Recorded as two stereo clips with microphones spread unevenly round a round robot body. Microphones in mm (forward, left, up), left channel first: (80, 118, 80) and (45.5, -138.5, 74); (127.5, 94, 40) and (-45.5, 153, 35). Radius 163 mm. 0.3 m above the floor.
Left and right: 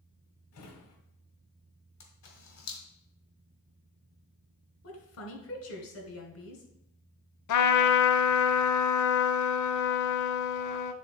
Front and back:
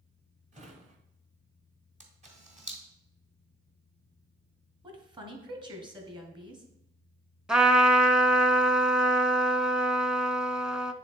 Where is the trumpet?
75° left, 0.7 m.